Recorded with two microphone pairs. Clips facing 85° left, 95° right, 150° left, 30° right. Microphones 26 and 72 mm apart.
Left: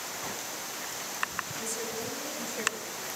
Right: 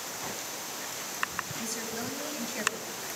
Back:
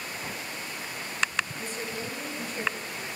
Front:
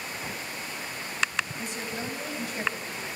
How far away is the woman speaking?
About 4.5 m.